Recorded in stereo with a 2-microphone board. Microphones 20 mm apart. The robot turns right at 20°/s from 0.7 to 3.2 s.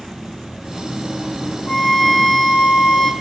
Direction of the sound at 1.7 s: 40° left (ahead or behind).